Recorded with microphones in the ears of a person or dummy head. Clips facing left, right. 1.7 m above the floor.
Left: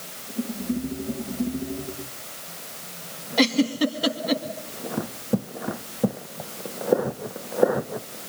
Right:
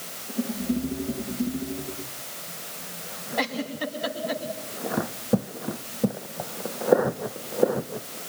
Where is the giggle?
50° left (ahead or behind), 2.5 m.